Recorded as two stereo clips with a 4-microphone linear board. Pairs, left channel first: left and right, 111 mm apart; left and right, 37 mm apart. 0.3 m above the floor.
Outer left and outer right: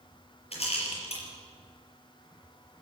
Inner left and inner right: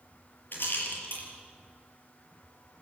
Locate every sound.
0.5 s a rattle: 65° left (ahead or behind), 5.5 m